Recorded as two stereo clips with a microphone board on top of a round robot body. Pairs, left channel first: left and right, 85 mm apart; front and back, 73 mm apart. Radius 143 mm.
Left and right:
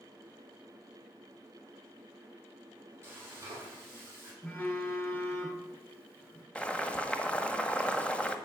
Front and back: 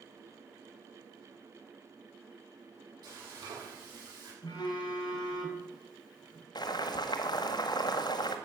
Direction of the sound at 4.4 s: 20° left.